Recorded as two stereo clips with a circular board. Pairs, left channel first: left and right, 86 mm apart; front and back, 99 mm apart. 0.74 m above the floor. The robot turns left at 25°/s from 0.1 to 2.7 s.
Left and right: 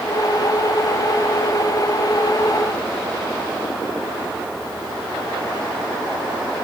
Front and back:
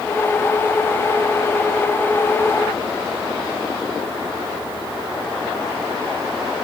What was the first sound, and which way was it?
Only background noise.